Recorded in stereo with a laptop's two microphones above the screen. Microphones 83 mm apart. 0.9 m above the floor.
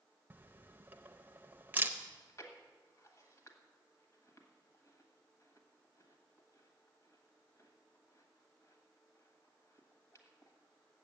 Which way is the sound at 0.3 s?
25° right (ahead or behind).